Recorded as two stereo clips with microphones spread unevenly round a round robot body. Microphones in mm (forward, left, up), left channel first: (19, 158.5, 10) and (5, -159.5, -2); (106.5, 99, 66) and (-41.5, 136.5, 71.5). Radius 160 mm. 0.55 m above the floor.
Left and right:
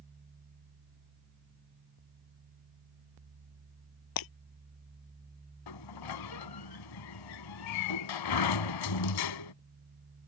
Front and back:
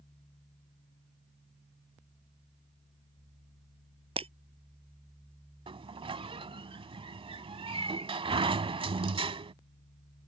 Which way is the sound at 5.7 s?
110° left.